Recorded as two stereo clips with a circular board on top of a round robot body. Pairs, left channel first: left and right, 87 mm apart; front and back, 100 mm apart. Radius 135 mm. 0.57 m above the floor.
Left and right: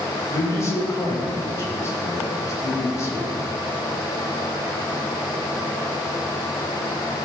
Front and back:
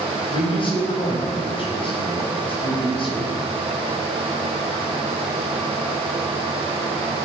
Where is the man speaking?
35° left, 3.5 m.